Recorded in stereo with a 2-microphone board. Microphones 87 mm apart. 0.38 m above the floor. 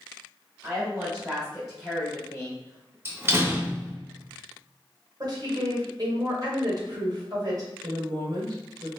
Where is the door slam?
25° right (ahead or behind), 0.6 m.